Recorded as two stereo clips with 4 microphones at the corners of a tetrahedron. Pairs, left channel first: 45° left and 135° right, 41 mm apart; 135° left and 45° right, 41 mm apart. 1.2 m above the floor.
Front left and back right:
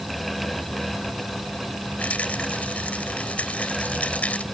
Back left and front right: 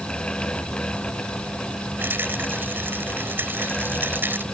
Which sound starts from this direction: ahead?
A rattle, at 2.0 s.